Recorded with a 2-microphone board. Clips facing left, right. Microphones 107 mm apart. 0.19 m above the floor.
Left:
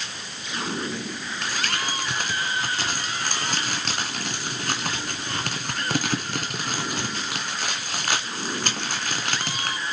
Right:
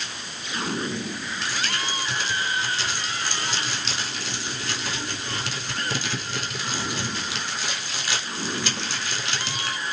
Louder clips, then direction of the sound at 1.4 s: Left 2 dB; 50° left (ahead or behind).